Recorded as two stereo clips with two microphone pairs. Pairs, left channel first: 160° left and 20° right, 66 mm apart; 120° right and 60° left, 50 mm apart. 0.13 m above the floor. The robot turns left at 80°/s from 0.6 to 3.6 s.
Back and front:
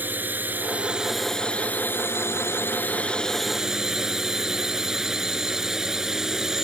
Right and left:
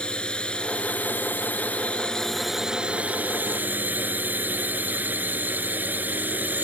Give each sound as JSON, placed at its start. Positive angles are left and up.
{"t": 0.0, "sound": "a drone", "azimuth_deg": -60}